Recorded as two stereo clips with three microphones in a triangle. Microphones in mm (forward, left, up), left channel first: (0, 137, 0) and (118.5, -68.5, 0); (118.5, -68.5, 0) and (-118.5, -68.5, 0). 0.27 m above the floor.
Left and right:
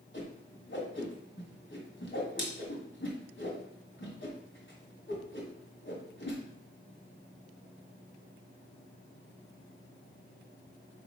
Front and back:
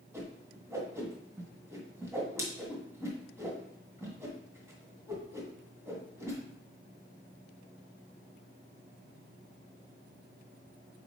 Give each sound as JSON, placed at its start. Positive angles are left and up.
{"t": 0.1, "sound": "a whoosh", "azimuth_deg": 105, "distance_m": 1.8}